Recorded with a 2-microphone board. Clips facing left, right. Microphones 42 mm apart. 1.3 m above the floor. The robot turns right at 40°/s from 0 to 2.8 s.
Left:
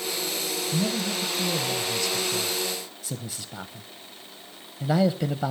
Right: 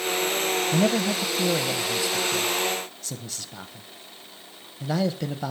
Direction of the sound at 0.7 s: 70° right (ahead or behind).